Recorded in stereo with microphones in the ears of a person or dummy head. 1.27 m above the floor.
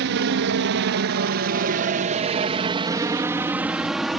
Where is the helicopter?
60° right (ahead or behind); by 4.2 s centre (ahead or behind).